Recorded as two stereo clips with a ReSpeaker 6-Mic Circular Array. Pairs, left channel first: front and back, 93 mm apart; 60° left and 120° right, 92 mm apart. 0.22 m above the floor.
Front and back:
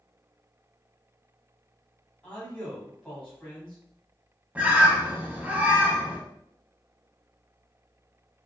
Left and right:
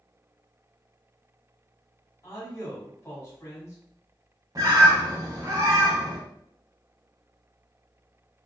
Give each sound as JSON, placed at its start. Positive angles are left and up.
{"t": 2.2, "sound": "a man speaking", "azimuth_deg": 70, "distance_m": 1.4}
{"t": 4.5, "sound": "a bird", "azimuth_deg": -115, "distance_m": 0.6}